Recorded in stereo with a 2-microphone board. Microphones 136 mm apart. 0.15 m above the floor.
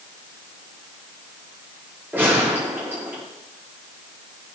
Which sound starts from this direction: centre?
A gunshot, at 2.1 s.